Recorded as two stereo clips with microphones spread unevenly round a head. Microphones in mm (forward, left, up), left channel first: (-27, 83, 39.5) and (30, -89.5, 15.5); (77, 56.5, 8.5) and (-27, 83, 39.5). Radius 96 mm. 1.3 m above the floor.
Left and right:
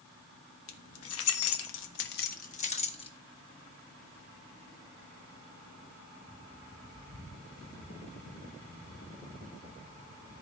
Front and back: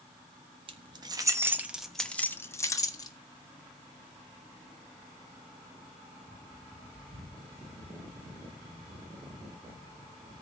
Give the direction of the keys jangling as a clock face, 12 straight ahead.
8 o'clock.